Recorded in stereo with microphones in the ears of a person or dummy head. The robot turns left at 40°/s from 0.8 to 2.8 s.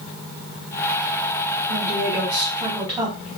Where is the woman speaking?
120° right, 1.6 m; by 3.3 s 165° right, 1.6 m.